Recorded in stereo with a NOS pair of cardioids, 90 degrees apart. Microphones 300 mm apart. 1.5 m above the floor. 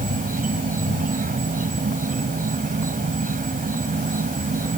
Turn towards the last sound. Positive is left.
turn(degrees=-30)